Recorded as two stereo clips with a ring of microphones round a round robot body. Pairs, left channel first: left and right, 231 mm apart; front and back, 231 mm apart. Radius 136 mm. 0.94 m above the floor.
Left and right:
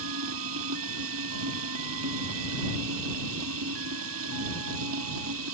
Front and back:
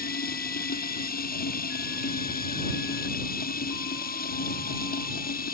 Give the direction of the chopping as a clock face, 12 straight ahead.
I don't hear chopping.